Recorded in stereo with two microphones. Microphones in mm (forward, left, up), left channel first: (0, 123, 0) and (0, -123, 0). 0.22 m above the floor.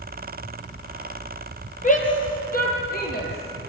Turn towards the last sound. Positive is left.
turn(degrees=45)  # may be behind; listen again after turning